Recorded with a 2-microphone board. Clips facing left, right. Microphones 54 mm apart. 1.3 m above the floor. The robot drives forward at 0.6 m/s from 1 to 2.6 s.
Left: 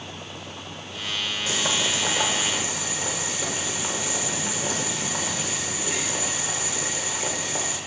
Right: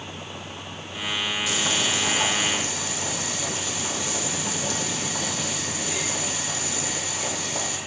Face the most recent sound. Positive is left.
turn(degrees=25)  # may be behind; listen again after turning